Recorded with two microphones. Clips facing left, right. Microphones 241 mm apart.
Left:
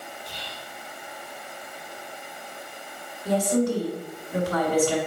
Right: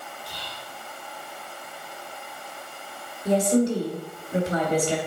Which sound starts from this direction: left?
Whispering, at 0.3 s.